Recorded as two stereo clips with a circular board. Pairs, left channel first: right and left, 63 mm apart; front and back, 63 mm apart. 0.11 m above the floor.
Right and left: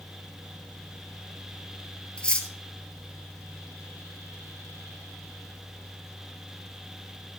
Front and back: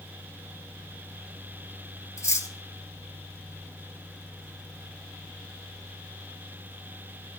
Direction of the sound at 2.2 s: 20° right.